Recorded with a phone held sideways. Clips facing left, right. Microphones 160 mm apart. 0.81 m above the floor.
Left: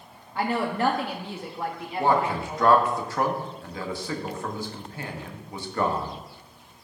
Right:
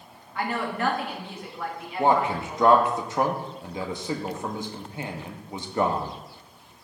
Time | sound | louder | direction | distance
0.3 | a woman speaking | left 3 dB | 30° left (ahead or behind) | 1.1 m
2.0 | a man speaking | right 1 dB | 20° right (ahead or behind) | 1.1 m